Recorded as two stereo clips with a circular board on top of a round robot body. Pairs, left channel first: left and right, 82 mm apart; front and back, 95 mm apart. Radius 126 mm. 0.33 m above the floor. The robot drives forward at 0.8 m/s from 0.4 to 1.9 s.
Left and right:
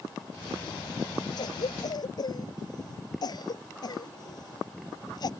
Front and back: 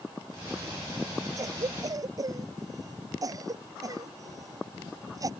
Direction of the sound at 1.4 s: 125° left.